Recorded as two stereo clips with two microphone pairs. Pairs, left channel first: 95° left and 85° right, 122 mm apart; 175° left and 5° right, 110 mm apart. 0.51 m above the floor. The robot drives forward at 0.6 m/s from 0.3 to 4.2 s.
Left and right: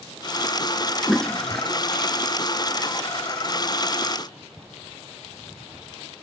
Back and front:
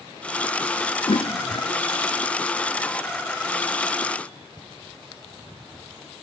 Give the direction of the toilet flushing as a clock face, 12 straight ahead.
6 o'clock.